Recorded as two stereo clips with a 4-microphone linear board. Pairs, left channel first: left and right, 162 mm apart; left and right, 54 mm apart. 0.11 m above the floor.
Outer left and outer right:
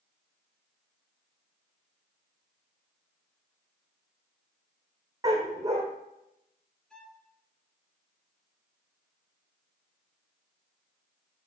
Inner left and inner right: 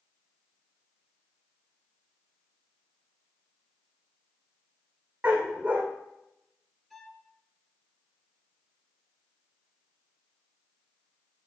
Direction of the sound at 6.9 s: 5° left (ahead or behind).